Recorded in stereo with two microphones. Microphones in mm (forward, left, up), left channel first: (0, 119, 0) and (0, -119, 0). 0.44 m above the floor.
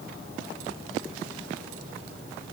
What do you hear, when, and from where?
Only background noise.